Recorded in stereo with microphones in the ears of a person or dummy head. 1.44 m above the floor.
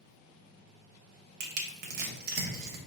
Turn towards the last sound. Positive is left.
turn(degrees=-60)  # may be behind; listen again after turning